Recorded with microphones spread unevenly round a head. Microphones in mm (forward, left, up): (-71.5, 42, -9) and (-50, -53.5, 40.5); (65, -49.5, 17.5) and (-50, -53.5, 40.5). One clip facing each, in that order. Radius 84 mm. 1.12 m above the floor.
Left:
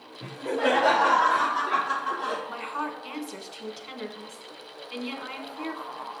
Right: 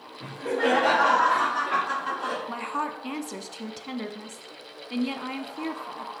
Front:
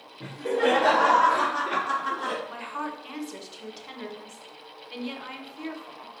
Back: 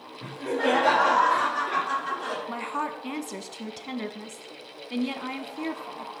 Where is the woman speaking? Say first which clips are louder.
Right 2 dB, back 3 dB; 135° right, 0.9 m.